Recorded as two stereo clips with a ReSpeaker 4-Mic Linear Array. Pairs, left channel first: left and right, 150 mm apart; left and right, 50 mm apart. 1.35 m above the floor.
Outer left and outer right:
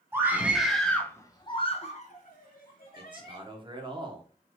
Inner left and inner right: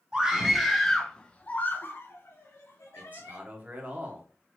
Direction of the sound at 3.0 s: 30° right (ahead or behind).